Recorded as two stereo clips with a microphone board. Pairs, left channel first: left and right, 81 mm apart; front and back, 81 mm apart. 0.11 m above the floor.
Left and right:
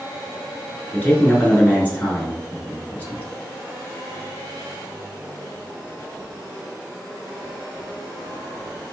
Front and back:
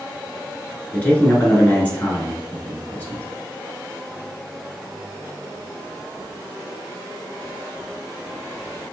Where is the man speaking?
45° left, 1.2 m.